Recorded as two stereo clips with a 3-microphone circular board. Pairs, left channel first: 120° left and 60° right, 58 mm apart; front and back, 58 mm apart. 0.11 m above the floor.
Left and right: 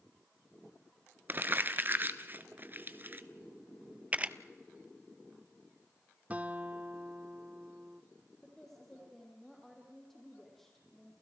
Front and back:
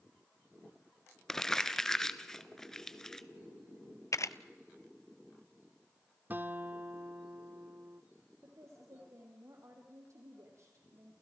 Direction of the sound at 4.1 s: 5° left.